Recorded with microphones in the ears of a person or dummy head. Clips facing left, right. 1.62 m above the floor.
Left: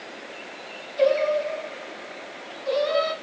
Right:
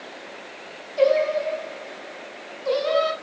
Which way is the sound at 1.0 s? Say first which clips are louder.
Right 1 dB; 70° right (ahead or behind).